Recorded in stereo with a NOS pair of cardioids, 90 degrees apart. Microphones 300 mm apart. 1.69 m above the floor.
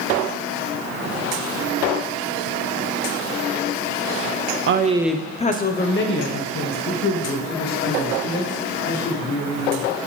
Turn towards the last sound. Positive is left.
turn(degrees=60)